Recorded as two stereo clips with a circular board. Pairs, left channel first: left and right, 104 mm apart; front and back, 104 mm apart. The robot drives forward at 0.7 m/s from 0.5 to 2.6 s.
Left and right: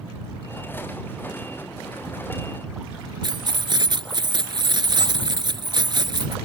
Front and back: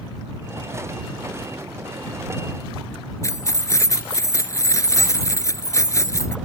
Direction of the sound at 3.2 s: 55° right.